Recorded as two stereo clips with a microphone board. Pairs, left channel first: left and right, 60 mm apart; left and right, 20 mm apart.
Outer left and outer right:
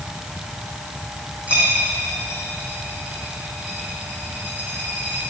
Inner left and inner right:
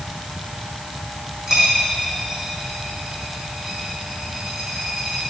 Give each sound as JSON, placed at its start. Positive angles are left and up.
{"t": 1.5, "sound": "a dropped coin", "side_deg": -25, "distance_m": 4.0}